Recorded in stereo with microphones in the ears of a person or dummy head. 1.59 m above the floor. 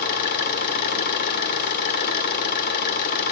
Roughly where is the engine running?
Left.